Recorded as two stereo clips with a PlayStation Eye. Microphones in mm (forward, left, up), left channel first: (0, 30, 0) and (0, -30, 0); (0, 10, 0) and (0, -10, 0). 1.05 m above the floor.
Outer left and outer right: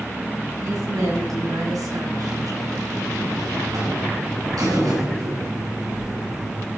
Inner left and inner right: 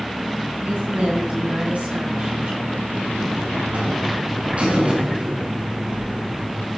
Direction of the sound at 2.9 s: 90° right.